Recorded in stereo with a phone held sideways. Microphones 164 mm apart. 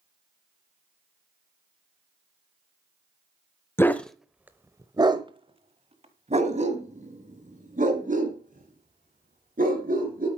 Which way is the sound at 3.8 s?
15° left (ahead or behind).